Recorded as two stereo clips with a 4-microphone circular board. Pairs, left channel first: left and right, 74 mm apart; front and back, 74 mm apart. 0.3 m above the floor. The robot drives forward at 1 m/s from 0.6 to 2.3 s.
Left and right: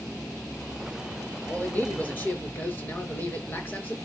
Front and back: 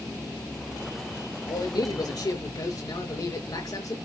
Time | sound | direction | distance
1.5 | a man speaking | 25° left | 5.5 m